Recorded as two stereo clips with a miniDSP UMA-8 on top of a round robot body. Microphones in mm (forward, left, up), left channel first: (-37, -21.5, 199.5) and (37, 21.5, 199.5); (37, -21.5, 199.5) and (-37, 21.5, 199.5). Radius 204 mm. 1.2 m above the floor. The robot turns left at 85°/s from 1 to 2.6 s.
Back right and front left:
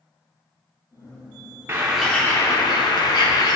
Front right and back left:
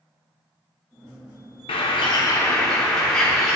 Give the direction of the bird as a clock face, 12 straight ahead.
1 o'clock.